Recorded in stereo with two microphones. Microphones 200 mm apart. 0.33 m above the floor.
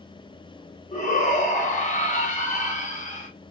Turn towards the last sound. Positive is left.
turn(degrees=40)  # may be behind; listen again after turning